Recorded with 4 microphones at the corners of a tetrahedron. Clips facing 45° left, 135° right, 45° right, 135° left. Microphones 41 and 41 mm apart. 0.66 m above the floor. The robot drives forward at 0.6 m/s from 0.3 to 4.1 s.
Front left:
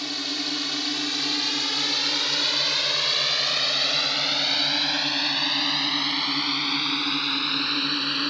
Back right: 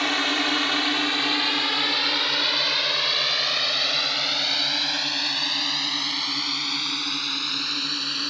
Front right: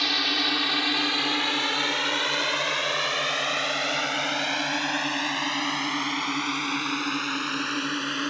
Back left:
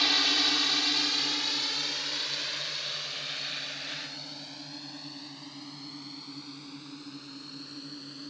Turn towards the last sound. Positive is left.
turn(degrees=-30)